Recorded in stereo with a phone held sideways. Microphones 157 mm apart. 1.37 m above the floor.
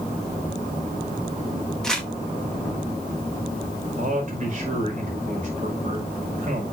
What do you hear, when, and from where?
1.8 s crumpling: 5° left (ahead or behind), 2.5 m
4.0 s a man speaking: 50° right (ahead or behind), 5 m